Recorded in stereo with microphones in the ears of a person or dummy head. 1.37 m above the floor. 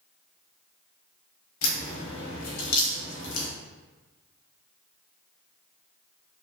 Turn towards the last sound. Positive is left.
turn(degrees=80)